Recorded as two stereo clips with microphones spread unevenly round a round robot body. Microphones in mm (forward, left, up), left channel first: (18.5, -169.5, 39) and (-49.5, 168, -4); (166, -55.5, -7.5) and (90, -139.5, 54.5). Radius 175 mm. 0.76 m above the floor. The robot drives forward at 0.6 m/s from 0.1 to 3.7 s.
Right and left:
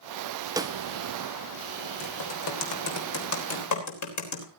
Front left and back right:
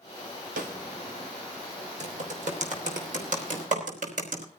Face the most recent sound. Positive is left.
turn(degrees=-120)